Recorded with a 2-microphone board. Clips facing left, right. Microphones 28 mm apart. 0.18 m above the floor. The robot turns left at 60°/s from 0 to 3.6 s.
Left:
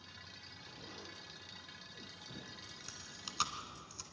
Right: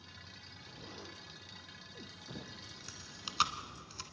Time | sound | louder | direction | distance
0.6 | an explosion | right 2 dB | 10° left | 2.5 m
2.9 | chewing | right 4 dB | centre (ahead or behind) | 1.2 m